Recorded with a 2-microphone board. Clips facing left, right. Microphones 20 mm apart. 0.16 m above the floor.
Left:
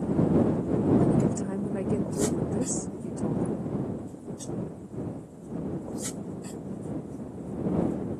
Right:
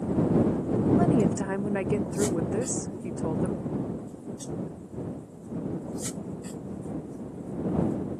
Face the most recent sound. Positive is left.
turn(degrees=-50)  # may be behind; listen again after turning